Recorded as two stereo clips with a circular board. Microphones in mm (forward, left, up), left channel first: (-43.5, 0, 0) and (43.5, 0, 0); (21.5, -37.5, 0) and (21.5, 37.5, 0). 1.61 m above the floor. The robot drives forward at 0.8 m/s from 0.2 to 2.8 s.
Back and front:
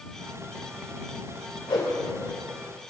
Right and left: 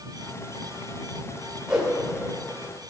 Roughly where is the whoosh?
Behind.